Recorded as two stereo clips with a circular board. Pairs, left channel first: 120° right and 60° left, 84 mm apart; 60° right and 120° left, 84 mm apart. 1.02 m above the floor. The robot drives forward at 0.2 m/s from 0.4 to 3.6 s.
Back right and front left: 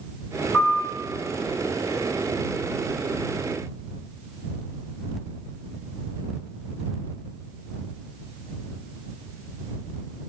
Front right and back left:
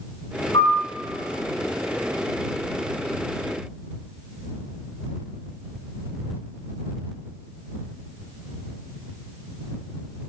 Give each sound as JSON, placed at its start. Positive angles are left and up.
{"t": 0.5, "sound": "a piano", "azimuth_deg": -40, "distance_m": 0.8}